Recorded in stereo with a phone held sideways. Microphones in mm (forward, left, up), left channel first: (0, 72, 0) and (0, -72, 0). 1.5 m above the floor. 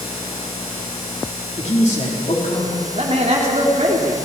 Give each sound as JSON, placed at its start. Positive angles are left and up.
{"t": 1.6, "sound": "a man speaking", "side_deg": 55, "distance_m": 4.5}
{"t": 3.0, "sound": "a man speaking", "side_deg": -50, "distance_m": 3.5}